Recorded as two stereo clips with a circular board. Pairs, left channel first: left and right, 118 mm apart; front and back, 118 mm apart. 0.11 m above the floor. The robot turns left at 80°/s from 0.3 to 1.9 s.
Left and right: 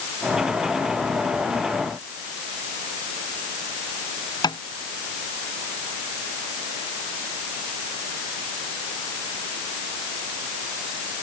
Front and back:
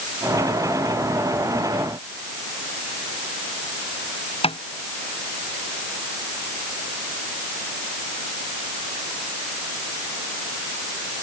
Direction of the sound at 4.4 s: 35° left.